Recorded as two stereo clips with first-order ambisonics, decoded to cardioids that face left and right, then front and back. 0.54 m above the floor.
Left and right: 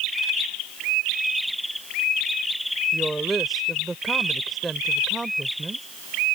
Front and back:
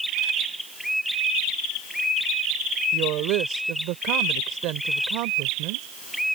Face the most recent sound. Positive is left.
turn(degrees=-170)